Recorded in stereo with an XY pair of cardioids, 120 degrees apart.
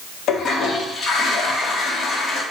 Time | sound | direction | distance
0.3 | a toilet flushing | 55° left | 1.0 m